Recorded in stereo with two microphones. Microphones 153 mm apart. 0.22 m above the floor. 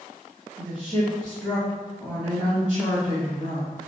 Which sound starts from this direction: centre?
A woman speaking, at 0.6 s.